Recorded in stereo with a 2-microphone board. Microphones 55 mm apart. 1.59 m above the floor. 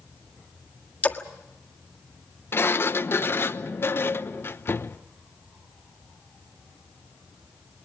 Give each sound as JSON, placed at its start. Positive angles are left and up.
{"t": 1.0, "sound": "a splash", "side_deg": 30, "distance_m": 1.6}
{"t": 2.5, "sound": "a sliding door", "side_deg": 45, "distance_m": 0.8}